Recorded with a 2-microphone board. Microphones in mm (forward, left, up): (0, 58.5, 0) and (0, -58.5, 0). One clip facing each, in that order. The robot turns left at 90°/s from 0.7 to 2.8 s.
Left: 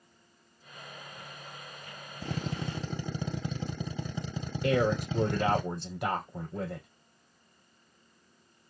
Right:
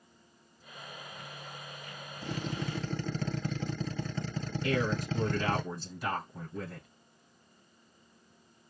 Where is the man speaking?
70° left (ahead or behind), 3.5 m.